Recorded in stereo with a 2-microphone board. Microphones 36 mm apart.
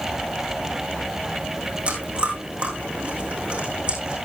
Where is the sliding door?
No sliding door in this recording.